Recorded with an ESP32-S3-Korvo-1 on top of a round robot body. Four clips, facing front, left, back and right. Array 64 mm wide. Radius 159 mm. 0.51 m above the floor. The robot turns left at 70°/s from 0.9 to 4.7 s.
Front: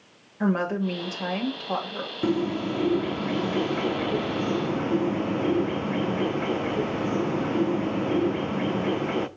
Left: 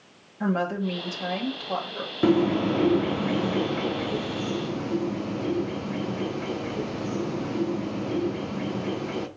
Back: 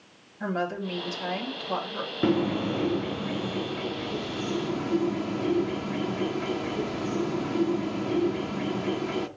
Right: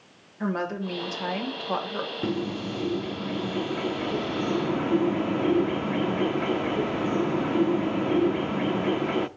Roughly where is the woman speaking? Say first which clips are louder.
Left 3 dB, front 5 dB; ahead.